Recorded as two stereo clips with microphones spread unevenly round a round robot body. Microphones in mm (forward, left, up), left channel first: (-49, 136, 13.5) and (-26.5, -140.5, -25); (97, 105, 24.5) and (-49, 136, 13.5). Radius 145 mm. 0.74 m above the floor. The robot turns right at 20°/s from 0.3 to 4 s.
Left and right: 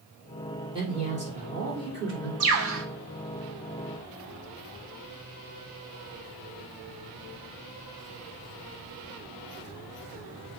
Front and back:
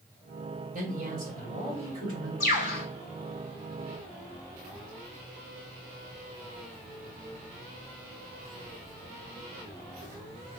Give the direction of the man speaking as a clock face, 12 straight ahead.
5 o'clock.